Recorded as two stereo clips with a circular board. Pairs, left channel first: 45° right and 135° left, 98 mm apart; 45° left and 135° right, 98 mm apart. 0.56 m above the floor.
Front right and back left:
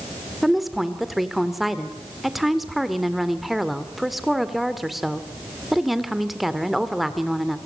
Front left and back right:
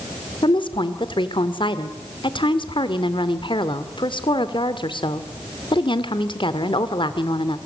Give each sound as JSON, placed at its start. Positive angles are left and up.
{"t": 0.4, "sound": "a woman speaking", "azimuth_deg": 45, "distance_m": 1.7}